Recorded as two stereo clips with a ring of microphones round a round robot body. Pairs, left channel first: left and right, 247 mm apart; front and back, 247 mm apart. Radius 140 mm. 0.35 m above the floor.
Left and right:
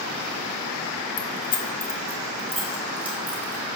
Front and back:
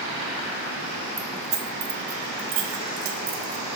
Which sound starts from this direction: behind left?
Keys jangling, at 1.2 s.